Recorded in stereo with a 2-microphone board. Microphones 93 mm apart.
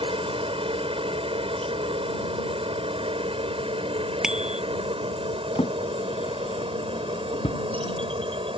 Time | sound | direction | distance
0.0 | a helicopter | 65° right (ahead or behind) | ?
4.2 | a bicycle bell | 5° right (ahead or behind) | ?
5.5 | a drawer | 80° left | ?